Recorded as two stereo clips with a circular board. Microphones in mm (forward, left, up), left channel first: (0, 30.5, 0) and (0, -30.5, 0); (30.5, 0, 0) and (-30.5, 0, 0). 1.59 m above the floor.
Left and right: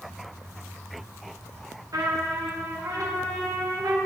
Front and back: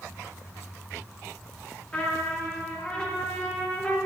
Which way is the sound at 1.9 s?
75° right.